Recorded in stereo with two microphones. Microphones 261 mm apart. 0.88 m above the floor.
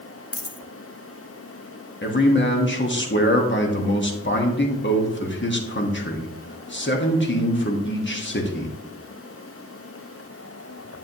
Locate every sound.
0.3 s a dropped coin: 65° left (ahead or behind), 0.7 m
2.0 s a man speaking: 45° left (ahead or behind), 1.2 m